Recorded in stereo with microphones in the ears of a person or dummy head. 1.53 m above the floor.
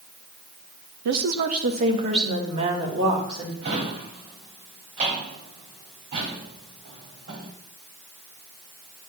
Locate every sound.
1.1 s a woman speaking: 60° right (ahead or behind), 1.0 m; by 3.5 s 30° right (ahead or behind), 4 m
3.6 s a drawer: 40° right (ahead or behind), 1.9 m